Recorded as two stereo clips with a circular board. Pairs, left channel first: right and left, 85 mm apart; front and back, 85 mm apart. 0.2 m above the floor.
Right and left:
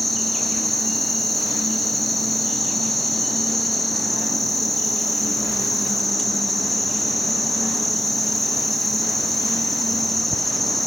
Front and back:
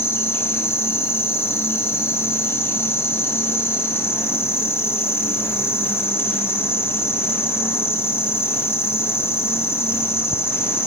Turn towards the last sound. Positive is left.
turn(degrees=0)